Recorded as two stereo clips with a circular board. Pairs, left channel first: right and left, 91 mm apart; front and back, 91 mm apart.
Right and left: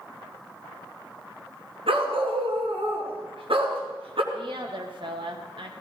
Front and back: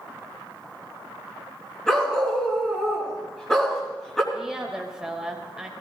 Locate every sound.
1.9 s a dog barking: 80° left, 3 m
4.3 s a woman speaking: 95° left, 2.5 m